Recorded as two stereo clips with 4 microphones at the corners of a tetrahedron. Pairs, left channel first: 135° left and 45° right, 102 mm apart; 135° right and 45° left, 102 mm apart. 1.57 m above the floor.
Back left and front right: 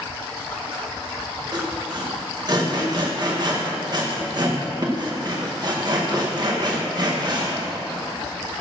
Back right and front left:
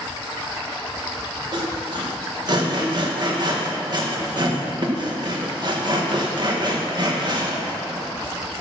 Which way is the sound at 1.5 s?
Straight ahead.